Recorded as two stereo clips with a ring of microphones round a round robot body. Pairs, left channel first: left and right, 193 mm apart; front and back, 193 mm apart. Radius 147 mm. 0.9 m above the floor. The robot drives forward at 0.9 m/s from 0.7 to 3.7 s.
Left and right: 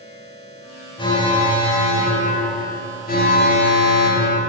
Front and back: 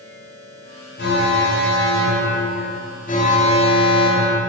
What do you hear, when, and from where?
1.0 s an alarm: 25° left, 3.5 m; by 4.4 s 60° left, 1.6 m